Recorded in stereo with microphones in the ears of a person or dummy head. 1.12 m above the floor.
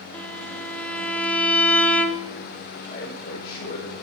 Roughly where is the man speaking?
Left.